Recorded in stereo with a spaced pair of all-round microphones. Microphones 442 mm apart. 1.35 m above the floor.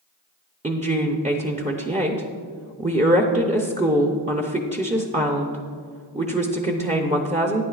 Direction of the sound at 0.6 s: 15° right (ahead or behind).